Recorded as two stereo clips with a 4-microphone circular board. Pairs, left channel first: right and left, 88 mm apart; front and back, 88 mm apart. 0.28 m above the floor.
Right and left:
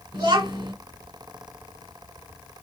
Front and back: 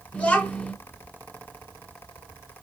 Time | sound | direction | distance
0.1 | a child speaking | 60° left | 1.1 m